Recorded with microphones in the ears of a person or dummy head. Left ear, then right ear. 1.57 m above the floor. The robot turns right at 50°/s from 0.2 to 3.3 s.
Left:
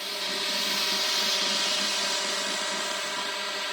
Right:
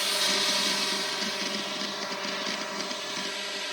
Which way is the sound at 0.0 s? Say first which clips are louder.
Right 4 dB; 15° right.